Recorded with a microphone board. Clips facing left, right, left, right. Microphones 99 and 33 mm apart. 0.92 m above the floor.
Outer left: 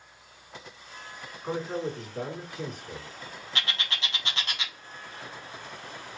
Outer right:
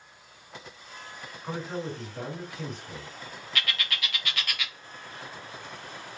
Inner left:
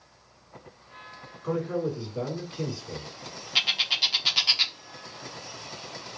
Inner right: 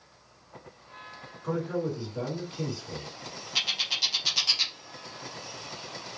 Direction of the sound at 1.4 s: 15° left (ahead or behind).